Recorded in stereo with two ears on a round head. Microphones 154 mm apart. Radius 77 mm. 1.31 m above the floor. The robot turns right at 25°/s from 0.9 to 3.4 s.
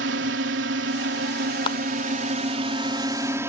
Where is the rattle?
No rattle in this recording.